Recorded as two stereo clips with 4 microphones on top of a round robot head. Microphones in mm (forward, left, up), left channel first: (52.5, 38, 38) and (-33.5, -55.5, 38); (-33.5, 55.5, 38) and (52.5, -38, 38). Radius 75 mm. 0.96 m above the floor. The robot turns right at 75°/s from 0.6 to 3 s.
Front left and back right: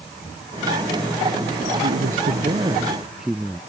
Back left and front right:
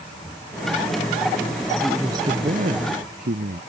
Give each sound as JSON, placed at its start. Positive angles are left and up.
{"t": 1.8, "sound": "a man speaking", "azimuth_deg": -135}